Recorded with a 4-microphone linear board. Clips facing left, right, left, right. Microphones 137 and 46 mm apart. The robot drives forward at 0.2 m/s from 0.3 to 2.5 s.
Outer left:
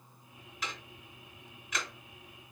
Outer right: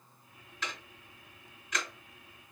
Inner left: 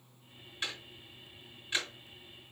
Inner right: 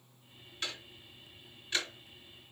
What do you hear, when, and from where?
0.6 s ticking: 10° left (ahead or behind), 2.5 m